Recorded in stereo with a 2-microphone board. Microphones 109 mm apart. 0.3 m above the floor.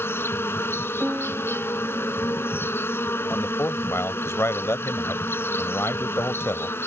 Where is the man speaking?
25° left (ahead or behind).